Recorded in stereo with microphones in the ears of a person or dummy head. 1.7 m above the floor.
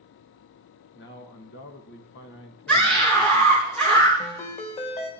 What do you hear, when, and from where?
0.9 s a man speaking: 55° left (ahead or behind), 1.8 m
2.7 s a scream: 5° left (ahead or behind), 3 m
4.2 s a ringtone: 35° left (ahead or behind), 1.7 m